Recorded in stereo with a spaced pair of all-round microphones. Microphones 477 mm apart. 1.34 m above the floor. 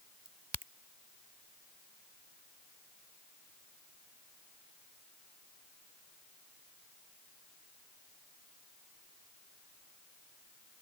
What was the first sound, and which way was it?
A crack, 55° right (ahead or behind).